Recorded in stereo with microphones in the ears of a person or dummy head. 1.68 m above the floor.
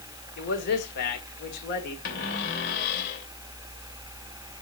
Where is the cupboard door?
50° left (ahead or behind), 3 m.